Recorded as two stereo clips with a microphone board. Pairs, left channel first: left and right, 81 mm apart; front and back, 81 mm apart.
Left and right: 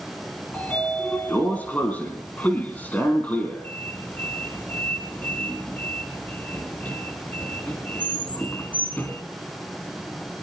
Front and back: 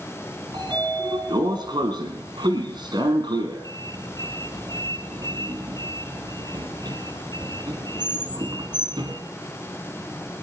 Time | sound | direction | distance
0.5 | a sliding door | 155° left | 3.5 m